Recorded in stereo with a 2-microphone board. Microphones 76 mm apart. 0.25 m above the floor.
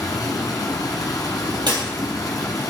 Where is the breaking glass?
80° right, 3 m.